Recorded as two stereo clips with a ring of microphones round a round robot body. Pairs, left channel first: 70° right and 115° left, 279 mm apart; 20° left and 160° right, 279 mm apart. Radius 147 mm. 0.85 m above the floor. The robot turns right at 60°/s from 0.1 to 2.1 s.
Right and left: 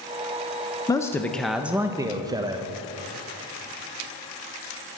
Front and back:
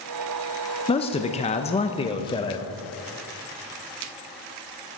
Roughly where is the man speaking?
Ahead.